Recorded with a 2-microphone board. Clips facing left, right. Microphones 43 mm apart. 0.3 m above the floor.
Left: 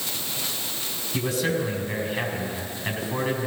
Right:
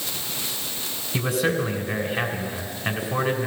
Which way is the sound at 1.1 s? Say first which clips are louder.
Right 2 dB; 15° right (ahead or behind).